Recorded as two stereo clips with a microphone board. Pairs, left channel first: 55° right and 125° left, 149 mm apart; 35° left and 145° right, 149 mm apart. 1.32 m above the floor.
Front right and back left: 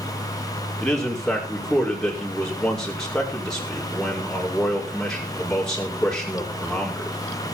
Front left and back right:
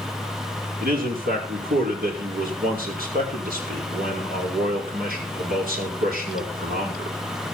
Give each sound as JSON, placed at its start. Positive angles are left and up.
{"t": 0.8, "sound": "a man speaking", "azimuth_deg": -140, "distance_m": 5.0}